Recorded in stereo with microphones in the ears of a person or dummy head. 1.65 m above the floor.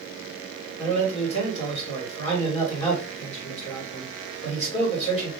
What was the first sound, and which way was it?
A man speaking, 40° left (ahead or behind).